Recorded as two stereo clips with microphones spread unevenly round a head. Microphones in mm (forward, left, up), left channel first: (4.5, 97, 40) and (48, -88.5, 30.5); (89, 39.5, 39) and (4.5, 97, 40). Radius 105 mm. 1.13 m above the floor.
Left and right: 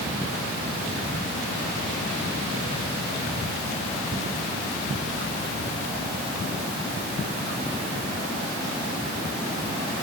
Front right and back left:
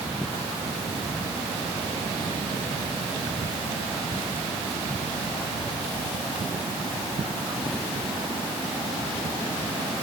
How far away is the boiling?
I don't hear boiling.